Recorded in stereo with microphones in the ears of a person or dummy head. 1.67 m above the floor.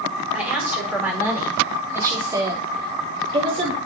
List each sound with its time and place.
0.3 s a woman speaking: 5° right (ahead or behind), 6 m; by 3.8 s 30° right (ahead or behind), 2.5 m